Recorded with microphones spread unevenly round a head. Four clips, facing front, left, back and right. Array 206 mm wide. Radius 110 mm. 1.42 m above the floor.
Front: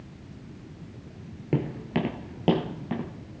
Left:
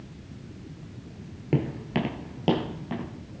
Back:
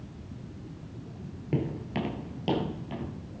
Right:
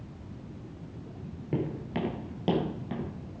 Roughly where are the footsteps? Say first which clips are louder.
Left 5 dB, front 3 dB; ahead left.